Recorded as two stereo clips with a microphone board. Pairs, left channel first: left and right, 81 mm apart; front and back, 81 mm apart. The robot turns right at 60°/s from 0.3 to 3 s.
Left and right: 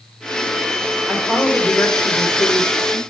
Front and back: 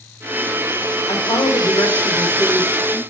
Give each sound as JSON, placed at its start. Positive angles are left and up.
{"t": 1.1, "sound": "a woman speaking", "azimuth_deg": -10, "distance_m": 1.6}